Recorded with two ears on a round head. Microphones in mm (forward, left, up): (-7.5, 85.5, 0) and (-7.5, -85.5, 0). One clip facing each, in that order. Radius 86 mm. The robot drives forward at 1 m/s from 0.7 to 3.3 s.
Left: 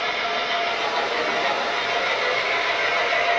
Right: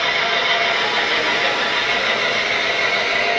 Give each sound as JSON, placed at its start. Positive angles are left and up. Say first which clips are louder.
{"t": 0.0, "sound": "an engine running", "louder": "right 4 dB", "side_deg": -80, "distance_m": 3.0}